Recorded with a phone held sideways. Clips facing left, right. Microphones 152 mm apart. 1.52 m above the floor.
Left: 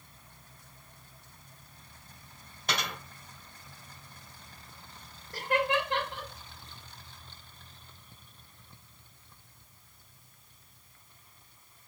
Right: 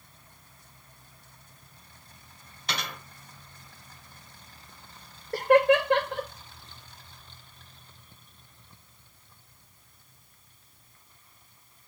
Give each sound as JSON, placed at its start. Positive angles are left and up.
{"t": 2.7, "sound": "a dropped coin", "side_deg": 50, "distance_m": 3.5}
{"t": 5.3, "sound": "laughter", "side_deg": -65, "distance_m": 0.5}